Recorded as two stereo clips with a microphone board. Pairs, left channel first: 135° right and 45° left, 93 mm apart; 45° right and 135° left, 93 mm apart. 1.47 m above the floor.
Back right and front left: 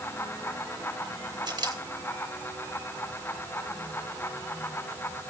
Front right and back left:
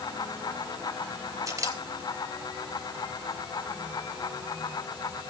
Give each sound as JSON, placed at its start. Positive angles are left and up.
{"t": 1.5, "sound": "a camera shutter", "azimuth_deg": 80, "distance_m": 3.0}